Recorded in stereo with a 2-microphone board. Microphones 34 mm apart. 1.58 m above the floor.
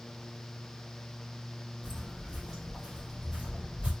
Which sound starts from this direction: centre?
Footsteps, at 1.8 s.